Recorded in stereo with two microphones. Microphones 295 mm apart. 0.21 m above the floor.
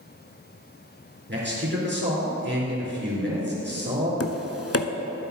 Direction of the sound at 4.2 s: 50° left (ahead or behind).